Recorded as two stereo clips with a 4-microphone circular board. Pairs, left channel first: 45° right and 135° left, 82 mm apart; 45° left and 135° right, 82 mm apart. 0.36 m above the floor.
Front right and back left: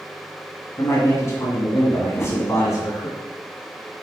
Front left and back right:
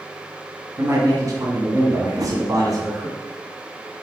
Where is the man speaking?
95° right, 2 m.